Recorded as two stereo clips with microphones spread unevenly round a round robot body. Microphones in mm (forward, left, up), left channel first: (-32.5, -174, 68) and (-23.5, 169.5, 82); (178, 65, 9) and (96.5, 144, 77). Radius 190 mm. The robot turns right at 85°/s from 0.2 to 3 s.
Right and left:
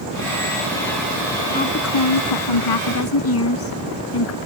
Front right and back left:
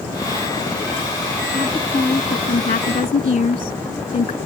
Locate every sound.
1.5 s a woman speaking: 165° right; by 4.4 s 40° right